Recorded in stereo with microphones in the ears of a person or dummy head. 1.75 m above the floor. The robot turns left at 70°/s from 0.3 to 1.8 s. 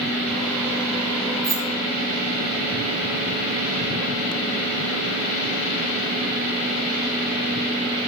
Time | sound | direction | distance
1.4 | keys jangling | 5° right (ahead or behind) | 1.4 m